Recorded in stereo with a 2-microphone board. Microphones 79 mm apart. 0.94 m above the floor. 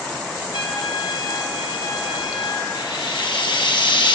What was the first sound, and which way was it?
A trumpet, 65° left (ahead or behind).